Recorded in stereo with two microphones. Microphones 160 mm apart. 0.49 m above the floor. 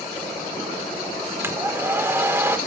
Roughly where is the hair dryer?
Centre.